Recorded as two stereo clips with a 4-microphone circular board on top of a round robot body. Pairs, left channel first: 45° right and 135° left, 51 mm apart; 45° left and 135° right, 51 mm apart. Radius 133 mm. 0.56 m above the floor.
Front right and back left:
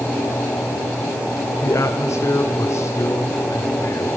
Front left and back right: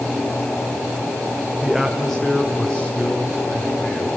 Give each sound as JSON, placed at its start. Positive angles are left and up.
{"t": 1.6, "sound": "a man speaking", "azimuth_deg": -45, "distance_m": 2.5}